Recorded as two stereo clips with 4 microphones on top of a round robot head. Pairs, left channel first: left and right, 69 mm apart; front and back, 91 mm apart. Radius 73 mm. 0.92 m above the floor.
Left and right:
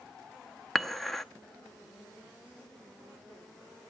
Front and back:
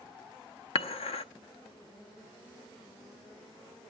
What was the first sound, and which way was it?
Dishes clattering, 5° left.